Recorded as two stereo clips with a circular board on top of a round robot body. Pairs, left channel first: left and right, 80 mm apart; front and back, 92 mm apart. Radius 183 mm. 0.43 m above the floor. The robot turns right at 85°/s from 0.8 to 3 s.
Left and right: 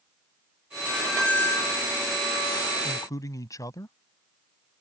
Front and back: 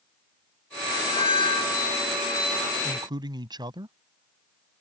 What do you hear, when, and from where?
0.9 s a squeak: 20° right; by 1.8 s 60° left
2.8 s a man speaking: 125° left; by 4.0 s 140° left